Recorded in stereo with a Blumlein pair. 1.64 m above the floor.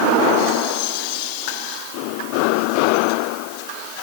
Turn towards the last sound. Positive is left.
No sound to turn to.